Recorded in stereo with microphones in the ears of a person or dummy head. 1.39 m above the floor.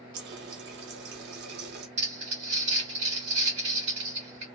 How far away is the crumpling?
About 1.6 m.